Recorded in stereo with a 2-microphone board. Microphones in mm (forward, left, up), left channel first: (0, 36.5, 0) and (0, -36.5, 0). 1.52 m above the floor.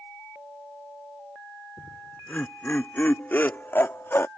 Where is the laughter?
20° left (ahead or behind); by 4.3 s 35° left (ahead or behind).